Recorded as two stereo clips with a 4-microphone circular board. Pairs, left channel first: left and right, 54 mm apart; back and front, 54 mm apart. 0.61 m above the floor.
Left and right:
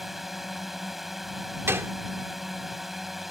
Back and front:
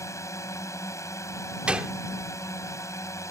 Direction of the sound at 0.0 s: 175° right.